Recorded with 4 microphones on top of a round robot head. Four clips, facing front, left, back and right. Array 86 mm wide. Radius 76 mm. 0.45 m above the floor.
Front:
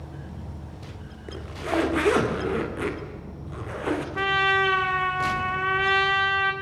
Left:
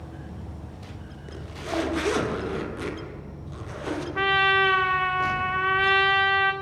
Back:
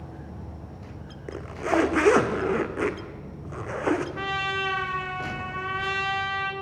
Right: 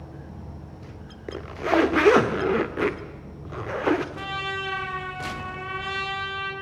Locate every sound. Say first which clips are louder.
0.0 s an insect: left 1 dB, front 1 dB; 155° right, 9.5 m
1.3 s a zipper: right 8 dB, back 3 dB; 115° right, 1.5 m
4.2 s a trumpet: left 10 dB, front 6 dB; 60° left, 1.8 m